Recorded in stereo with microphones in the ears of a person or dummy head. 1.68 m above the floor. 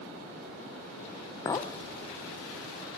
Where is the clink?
20° left (ahead or behind), 0.9 m.